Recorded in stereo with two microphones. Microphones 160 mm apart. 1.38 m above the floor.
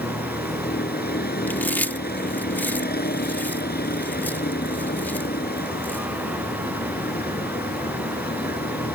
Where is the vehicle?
80° left.